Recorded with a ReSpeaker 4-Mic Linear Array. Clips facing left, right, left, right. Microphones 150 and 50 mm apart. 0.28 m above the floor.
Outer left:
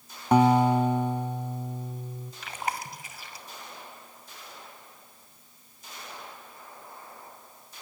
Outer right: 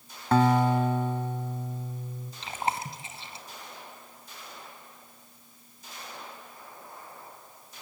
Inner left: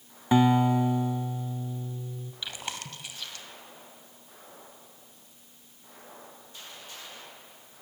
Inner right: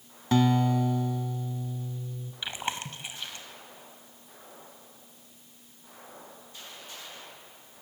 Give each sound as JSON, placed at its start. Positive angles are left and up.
{"t": 0.3, "sound": "a guitar", "side_deg": 15, "distance_m": 0.9}
{"t": 2.4, "sound": "chewing", "side_deg": -25, "distance_m": 2.0}